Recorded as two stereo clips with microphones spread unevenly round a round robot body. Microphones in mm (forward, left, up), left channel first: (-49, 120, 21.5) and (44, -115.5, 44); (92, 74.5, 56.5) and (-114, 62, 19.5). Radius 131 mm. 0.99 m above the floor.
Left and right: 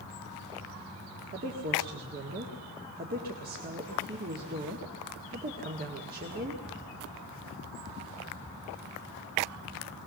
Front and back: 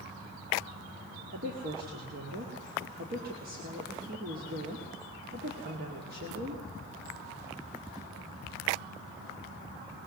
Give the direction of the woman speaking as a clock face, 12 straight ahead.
4 o'clock.